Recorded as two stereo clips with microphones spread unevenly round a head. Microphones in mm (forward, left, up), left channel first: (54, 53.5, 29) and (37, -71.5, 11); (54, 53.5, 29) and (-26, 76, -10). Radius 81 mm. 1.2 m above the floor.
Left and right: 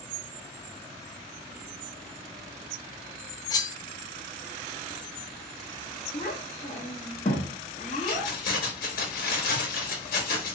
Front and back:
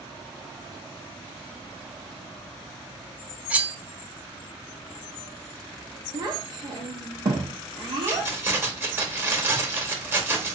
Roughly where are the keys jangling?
Left.